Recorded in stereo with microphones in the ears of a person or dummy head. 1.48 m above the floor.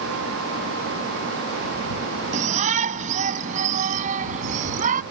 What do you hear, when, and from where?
2.3 s a shout: 40° right (ahead or behind); by 5.0 s 45° right (ahead or behind)